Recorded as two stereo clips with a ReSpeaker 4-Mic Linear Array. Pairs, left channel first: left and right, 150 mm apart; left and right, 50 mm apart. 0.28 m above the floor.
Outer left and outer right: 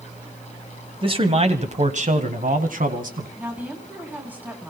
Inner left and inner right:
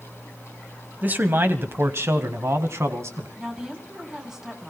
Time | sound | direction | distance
1.0 | a man speaking | 35° right (ahead or behind) | 1.3 m
3.4 | a woman speaking | 10° right (ahead or behind) | 3 m